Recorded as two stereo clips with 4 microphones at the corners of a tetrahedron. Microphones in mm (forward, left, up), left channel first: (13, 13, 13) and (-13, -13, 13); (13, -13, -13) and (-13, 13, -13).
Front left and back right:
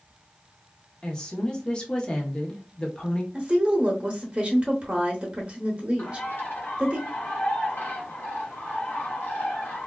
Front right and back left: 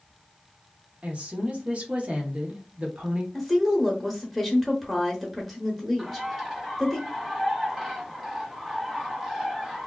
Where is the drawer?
No drawer in this recording.